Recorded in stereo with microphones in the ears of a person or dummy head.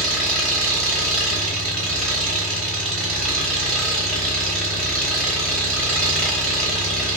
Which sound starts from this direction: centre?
An engine running, at 0.0 s.